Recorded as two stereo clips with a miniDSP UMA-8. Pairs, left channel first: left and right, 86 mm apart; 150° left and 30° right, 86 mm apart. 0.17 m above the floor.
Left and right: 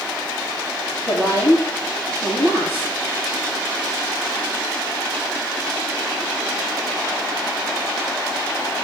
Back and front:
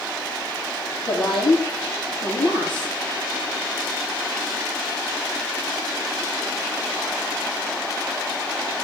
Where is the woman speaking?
135° left, 5.5 m.